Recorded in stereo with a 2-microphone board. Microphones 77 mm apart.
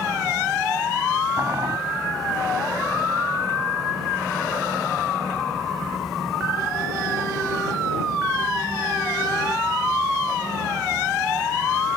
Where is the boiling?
45° right (ahead or behind).